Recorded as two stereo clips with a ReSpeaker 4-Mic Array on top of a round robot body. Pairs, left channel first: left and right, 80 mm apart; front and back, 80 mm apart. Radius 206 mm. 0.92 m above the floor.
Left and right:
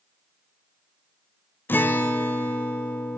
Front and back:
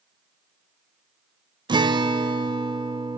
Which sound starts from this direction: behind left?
A guitar, at 1.7 s.